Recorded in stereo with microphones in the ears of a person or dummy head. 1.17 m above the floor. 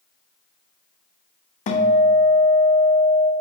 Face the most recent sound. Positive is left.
turn(degrees=45)  # may be behind; listen again after turning